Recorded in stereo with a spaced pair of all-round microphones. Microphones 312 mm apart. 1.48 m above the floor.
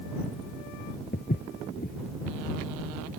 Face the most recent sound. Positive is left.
turn(degrees=30)  # may be behind; listen again after turning